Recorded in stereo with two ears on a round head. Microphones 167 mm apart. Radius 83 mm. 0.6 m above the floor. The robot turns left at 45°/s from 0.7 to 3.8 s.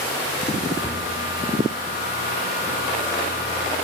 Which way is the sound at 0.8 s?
15° left (ahead or behind).